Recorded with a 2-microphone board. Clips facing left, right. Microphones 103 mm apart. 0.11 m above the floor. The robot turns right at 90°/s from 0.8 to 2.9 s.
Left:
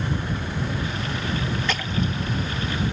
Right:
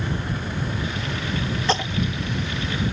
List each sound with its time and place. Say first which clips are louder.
1.7 s a splash: right 3 dB; 35° right (ahead or behind); by 2.1 s centre (ahead or behind)